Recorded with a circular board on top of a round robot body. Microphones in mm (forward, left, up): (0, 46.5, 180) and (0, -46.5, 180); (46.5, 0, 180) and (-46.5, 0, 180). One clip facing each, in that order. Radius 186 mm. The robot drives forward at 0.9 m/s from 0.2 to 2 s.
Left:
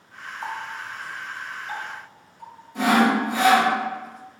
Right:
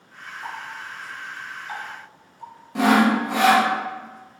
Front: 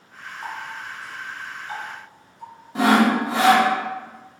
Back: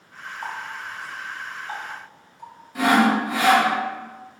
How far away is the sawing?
About 0.5 m.